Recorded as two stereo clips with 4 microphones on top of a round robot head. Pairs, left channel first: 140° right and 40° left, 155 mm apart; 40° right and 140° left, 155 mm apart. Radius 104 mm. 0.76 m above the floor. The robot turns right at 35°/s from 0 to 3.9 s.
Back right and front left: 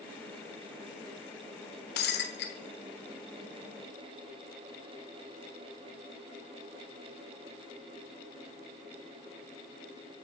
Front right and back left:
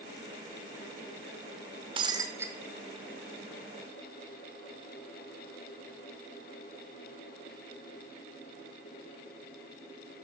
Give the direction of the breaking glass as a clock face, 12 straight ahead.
5 o'clock.